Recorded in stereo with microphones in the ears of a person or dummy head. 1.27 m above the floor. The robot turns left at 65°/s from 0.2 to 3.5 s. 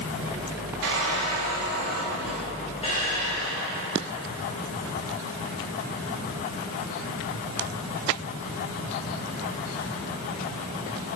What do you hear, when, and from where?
0.8 s a squeak: 75° right, 2 m; by 4.1 s 110° left, 2 m